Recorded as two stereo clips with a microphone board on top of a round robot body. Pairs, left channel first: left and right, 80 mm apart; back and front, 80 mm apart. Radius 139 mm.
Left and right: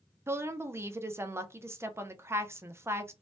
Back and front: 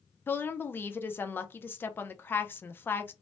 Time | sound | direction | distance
0.3 | a woman speaking | 130° right | 0.6 m